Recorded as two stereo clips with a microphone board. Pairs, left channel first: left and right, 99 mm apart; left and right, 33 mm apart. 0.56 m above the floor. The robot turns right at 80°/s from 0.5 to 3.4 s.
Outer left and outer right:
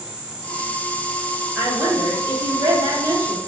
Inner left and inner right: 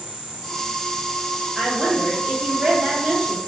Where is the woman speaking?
165° right, 1.2 m; by 3.4 s 20° right, 1.2 m.